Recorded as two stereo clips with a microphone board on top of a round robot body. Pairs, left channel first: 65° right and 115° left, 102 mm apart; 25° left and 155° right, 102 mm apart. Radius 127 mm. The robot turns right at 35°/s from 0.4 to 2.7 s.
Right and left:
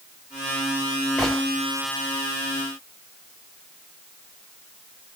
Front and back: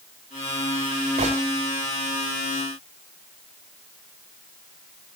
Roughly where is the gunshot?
Behind.